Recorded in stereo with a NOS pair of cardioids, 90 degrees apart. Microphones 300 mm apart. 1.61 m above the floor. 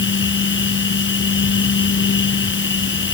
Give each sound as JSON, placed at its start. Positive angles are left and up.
{"t": 0.0, "sound": "a machine running", "azimuth_deg": 40}